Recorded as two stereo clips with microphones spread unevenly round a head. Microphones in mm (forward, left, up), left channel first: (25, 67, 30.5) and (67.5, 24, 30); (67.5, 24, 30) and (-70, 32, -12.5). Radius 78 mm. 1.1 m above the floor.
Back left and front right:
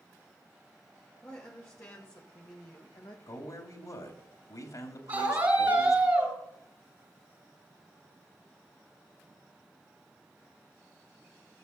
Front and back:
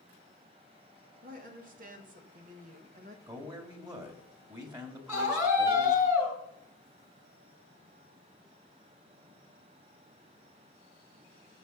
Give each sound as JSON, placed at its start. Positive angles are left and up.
{"t": 1.2, "sound": "a woman speaking", "azimuth_deg": -160, "distance_m": 2.5}
{"t": 3.3, "sound": "a man speaking", "azimuth_deg": 120, "distance_m": 2.5}
{"t": 5.1, "sound": "a scream", "azimuth_deg": -100, "distance_m": 5.5}